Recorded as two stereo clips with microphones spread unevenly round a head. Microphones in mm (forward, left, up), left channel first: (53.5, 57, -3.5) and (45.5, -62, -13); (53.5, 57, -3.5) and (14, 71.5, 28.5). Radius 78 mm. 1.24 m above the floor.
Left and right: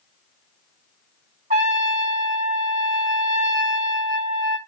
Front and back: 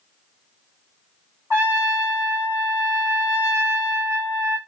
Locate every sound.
1.5 s a trumpet: 145° right, 1.9 m